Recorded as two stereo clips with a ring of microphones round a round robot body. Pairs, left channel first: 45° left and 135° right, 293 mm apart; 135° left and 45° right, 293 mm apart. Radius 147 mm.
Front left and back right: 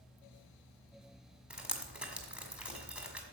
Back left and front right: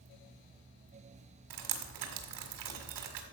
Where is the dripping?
50° right, 1.8 m.